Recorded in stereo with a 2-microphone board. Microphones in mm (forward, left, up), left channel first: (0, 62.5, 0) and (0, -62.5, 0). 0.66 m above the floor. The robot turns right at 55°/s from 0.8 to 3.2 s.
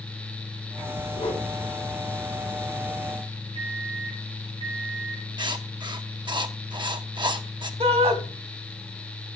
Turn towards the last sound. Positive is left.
turn(degrees=-50)  # may be behind; listen again after turning